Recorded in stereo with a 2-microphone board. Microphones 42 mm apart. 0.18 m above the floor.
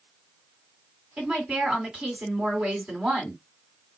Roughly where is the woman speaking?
Right.